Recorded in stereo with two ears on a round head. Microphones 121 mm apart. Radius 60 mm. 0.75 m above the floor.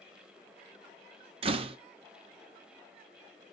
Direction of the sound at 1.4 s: 40° right (ahead or behind).